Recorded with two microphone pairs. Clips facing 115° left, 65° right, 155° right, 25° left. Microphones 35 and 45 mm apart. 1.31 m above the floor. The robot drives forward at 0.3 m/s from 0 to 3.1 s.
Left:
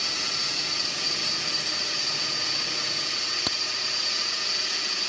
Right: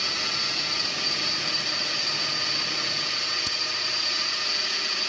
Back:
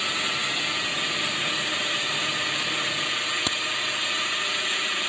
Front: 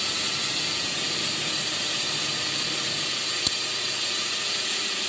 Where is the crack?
150° left.